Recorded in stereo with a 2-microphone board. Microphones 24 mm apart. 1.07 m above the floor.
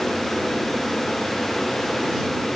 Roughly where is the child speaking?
I don't hear a child speaking.